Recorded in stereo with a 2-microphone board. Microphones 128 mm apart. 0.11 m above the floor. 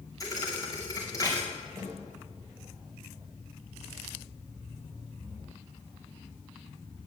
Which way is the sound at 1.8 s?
25° right (ahead or behind).